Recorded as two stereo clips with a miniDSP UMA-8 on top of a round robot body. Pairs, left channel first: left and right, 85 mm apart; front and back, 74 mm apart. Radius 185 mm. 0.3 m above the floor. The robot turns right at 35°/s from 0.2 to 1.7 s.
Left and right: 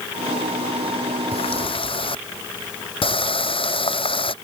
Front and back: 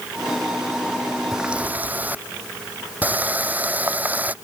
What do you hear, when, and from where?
1.3 s a running tap: 95° left; by 4.3 s 110° left